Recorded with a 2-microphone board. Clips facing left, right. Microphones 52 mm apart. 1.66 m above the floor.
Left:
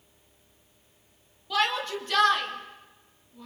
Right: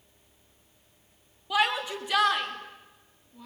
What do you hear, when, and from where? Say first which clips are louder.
1.5 s a shout: even; 15° right (ahead or behind), 4 m; by 3.5 s 5° right (ahead or behind), 5 m